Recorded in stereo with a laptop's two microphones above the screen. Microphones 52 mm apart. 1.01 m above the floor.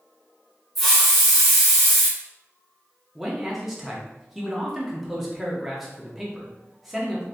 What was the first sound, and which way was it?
A hiss, centre (ahead or behind).